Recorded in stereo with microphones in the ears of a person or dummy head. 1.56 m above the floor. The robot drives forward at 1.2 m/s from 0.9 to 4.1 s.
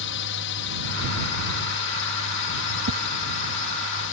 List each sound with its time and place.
0.0 s a drone: 60° left (ahead or behind); by 4.1 s 65° left (ahead or behind)
2.9 s a whoosh: 65° right (ahead or behind)